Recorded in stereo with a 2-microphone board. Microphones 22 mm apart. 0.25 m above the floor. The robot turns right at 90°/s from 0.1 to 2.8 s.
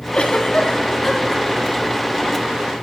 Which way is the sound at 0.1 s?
55° left (ahead or behind).